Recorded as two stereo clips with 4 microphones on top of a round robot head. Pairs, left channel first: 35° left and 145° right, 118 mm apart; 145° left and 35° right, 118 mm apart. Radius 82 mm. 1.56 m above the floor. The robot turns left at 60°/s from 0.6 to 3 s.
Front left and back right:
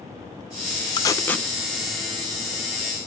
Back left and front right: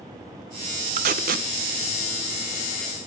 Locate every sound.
1.0 s tape being pulled: 20° right, 1.1 m; by 1.5 s 50° right, 1.1 m